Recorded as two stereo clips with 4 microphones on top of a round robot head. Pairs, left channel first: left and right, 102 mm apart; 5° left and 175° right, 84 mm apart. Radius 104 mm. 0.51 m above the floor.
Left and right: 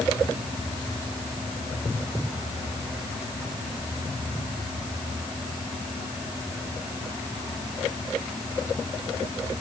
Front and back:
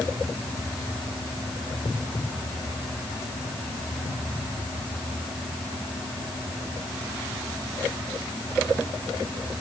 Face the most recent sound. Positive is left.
No sound to turn to.